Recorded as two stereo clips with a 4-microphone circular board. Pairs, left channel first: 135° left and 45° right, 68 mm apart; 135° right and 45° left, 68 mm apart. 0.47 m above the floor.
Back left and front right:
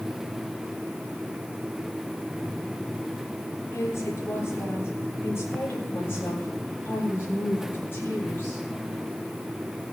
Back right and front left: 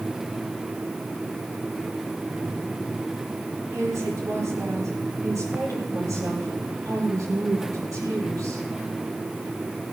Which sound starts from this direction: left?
A woman speaking, at 3.7 s.